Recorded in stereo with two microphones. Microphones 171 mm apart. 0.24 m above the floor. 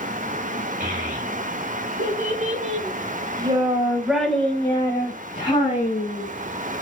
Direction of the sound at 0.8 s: 65° right (ahead or behind).